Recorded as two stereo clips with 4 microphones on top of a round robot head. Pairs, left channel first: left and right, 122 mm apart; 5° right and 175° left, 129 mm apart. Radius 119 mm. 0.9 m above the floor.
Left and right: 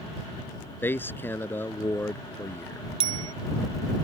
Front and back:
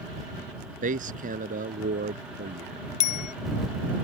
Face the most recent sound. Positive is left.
turn(degrees=-40)